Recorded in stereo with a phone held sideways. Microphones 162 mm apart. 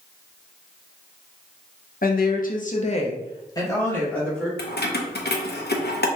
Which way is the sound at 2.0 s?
60° left (ahead or behind).